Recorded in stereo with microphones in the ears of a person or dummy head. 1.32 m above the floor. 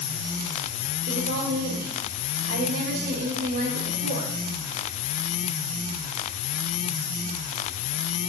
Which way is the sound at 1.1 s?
55° right (ahead or behind).